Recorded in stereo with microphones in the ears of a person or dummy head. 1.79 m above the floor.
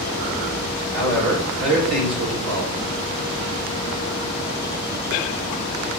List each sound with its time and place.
0.9 s a man speaking: 65° right (ahead or behind), 2.5 m